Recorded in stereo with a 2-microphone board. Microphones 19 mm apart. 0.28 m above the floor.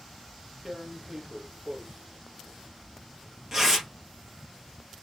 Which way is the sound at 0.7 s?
25° right (ahead or behind).